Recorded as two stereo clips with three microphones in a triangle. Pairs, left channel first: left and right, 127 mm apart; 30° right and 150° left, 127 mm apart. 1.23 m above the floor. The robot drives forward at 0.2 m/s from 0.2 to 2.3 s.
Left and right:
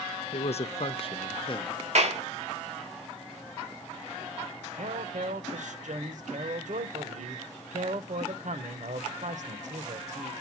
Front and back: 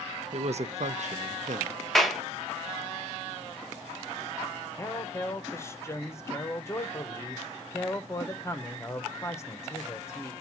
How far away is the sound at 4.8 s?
About 0.9 m.